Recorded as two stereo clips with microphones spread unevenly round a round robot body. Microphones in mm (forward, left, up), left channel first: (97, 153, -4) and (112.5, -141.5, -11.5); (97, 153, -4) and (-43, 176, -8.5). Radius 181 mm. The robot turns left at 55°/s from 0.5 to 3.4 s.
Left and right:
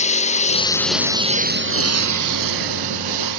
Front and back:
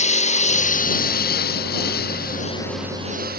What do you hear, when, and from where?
0.0 s a lawn mower: 25° left; by 3.4 s 135° right